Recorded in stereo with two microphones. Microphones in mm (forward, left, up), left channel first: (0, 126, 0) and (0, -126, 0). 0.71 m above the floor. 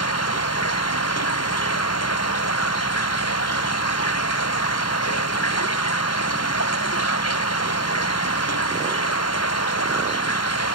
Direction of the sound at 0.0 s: 75° left (ahead or behind).